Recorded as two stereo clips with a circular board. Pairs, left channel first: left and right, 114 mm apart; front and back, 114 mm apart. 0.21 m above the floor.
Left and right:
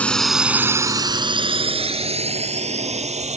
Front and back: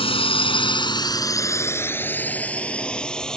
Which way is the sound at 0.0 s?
15° left.